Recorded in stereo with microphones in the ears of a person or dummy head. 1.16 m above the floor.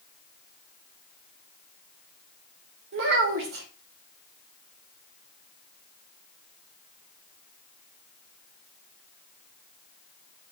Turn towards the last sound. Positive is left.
turn(degrees=-65)  # may be behind; listen again after turning